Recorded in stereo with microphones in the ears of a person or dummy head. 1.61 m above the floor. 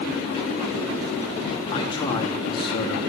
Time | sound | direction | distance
1.7 | a man speaking | 30° left (ahead or behind) | 3 m